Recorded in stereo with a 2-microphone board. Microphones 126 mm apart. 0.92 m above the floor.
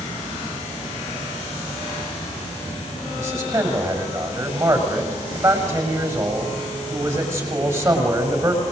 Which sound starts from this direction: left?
An insect, at 0.0 s.